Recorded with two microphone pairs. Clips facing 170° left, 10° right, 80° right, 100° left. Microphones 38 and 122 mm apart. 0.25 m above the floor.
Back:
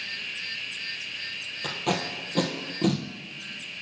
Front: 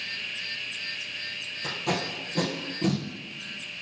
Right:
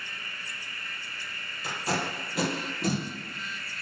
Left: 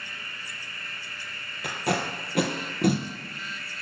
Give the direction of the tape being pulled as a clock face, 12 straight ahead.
8 o'clock.